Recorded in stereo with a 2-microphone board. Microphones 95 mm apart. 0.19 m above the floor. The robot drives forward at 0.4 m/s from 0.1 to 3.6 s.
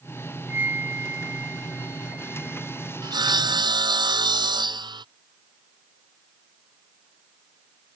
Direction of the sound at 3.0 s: 50° right (ahead or behind).